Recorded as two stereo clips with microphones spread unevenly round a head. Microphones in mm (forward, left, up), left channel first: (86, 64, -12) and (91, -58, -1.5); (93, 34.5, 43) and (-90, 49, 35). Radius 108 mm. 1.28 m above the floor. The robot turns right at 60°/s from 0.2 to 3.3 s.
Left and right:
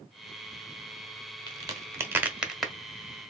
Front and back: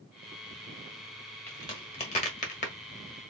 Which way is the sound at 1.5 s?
75° right.